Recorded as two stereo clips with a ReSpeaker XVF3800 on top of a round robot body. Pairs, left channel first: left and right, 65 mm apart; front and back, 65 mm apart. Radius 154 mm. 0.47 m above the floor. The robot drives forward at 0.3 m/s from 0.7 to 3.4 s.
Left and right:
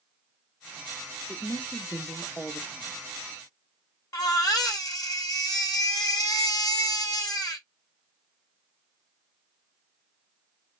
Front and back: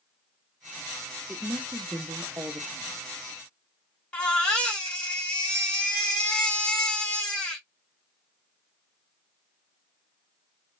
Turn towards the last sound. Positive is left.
turn(degrees=75)